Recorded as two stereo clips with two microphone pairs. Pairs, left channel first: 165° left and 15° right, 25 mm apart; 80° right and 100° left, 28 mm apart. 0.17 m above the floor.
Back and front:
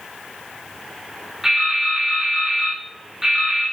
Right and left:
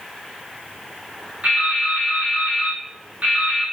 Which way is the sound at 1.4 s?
60° left.